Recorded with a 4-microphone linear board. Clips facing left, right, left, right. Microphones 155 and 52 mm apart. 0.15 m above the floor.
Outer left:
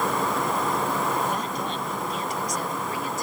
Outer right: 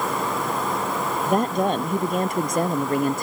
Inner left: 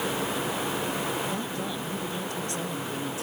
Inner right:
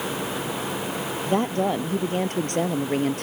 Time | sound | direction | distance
1.2 | a woman speaking | 60° right (ahead or behind) | ?